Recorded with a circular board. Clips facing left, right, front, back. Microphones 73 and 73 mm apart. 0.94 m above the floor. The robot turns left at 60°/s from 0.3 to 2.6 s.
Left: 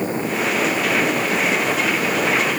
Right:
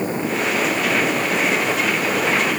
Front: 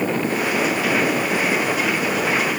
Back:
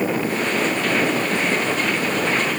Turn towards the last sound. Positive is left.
No sound to turn to.